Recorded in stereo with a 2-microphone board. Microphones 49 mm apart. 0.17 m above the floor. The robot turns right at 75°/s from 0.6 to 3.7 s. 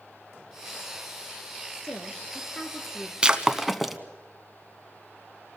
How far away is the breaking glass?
About 1.0 m.